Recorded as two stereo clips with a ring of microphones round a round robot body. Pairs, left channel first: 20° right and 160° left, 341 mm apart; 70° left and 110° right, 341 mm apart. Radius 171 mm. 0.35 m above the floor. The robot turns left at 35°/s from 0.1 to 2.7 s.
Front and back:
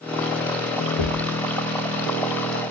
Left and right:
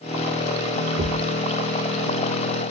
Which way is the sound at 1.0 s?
45° right.